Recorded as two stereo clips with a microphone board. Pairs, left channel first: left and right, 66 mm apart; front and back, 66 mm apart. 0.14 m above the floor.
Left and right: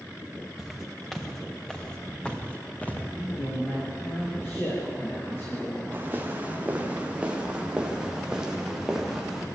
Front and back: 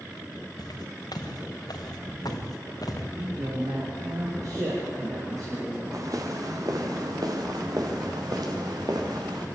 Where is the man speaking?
145° left, 7 m.